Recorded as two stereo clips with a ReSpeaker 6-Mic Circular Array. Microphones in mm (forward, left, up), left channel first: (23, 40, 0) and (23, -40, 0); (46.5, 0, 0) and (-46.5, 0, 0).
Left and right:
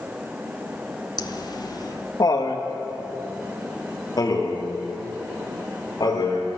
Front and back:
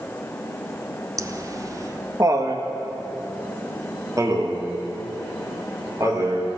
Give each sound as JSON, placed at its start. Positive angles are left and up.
{"t": 1.2, "sound": "laughter", "azimuth_deg": 125, "distance_m": 0.9}